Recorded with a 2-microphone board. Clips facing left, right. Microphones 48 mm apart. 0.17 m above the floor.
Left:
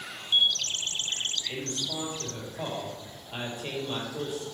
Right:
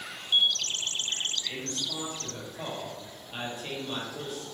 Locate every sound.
1.5 s a man speaking: 5° left (ahead or behind), 3.5 m